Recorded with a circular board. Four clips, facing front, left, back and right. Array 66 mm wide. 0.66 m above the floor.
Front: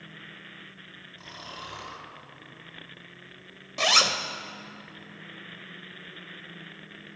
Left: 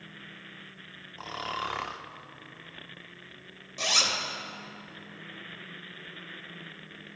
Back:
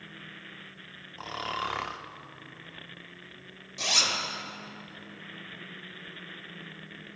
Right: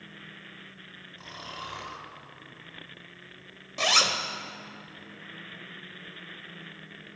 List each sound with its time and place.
1.2 s snoring: 140° left, 0.6 m
3.8 s a zipper: 30° right, 0.7 m